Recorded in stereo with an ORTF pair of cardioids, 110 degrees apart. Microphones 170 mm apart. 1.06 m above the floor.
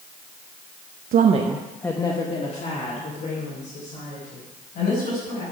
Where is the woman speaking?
65° right, 0.9 m; by 5.4 s 55° left, 6.5 m.